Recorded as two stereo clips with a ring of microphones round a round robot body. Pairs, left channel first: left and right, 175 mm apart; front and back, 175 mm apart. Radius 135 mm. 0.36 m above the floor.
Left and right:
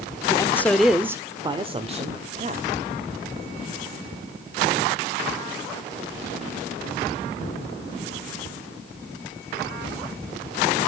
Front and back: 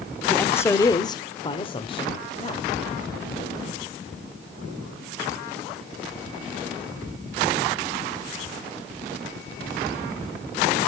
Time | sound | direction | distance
0.3 | a man speaking | 70° left | 0.9 m